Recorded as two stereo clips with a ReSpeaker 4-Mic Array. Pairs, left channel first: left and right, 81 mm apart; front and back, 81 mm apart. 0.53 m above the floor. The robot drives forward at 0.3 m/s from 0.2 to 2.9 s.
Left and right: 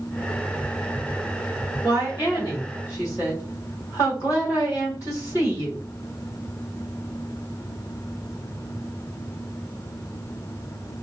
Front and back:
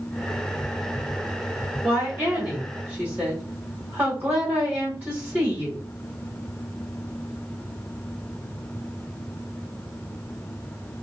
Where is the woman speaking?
110° left, 1.6 m; by 5.8 s 125° left, 1.7 m.